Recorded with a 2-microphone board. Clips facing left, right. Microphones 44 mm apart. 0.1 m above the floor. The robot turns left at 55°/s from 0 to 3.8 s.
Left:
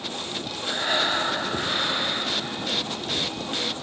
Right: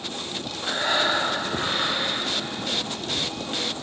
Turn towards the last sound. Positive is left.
turn(degrees=115)